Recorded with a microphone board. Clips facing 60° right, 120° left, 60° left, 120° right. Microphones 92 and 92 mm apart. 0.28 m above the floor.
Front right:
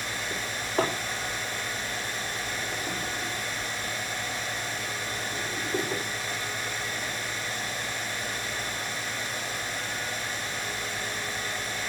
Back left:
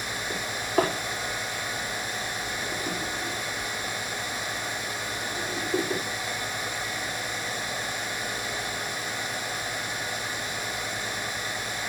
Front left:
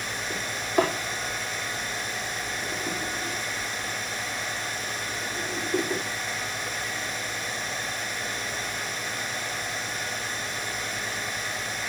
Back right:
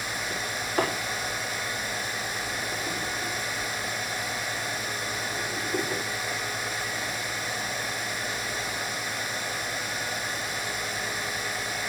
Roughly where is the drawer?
Behind left.